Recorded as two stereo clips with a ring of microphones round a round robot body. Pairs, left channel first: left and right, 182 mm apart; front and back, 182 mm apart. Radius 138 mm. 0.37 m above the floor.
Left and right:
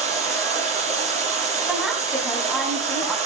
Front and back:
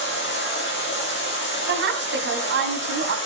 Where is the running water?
35° right, 9.5 m.